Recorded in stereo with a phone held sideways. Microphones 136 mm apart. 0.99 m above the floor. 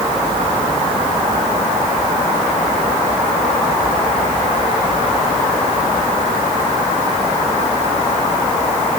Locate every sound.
Only background noise.